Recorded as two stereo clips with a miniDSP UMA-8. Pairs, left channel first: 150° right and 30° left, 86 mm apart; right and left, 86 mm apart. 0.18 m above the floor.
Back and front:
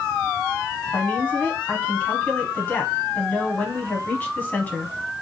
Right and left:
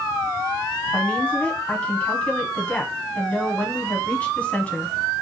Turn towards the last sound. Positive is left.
turn(degrees=-130)